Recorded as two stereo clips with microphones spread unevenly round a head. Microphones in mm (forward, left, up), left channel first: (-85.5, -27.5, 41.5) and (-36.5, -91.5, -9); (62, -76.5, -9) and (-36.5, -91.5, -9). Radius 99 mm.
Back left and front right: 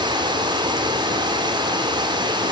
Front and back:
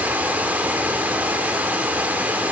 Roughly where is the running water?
Right.